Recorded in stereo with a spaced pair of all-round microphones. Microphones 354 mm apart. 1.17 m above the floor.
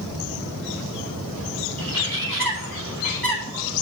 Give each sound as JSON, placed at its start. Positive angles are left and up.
{"t": 1.8, "sound": "a bird", "side_deg": -65, "distance_m": 3.0}